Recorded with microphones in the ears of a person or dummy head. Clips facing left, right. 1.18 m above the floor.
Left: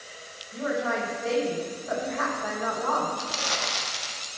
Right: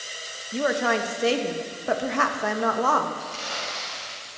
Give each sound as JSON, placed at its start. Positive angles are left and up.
{"t": 0.5, "sound": "a woman speaking", "side_deg": -80, "distance_m": 1.0}
{"t": 3.2, "sound": "crumpling", "side_deg": 80, "distance_m": 1.4}